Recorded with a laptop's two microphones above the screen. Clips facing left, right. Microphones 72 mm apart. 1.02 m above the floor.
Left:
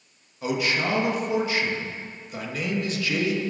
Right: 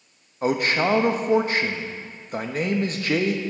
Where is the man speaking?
40° right (ahead or behind), 0.9 m.